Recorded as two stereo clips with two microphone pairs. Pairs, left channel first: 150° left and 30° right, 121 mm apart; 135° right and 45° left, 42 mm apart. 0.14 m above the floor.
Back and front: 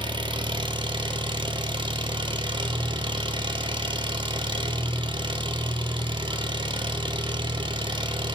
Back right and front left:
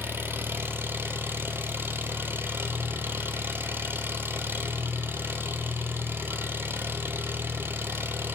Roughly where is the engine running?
Ahead.